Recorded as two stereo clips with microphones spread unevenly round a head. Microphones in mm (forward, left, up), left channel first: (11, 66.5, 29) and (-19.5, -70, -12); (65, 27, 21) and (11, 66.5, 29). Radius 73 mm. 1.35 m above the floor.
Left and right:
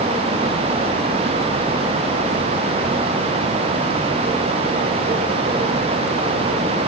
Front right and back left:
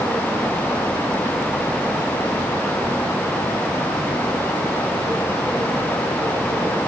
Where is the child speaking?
I don't hear a child speaking.